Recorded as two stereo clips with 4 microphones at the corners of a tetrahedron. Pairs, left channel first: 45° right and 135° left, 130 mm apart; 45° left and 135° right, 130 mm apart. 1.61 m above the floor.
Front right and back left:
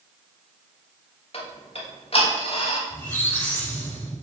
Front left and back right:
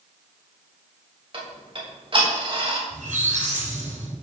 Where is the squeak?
115° right, 6.5 m.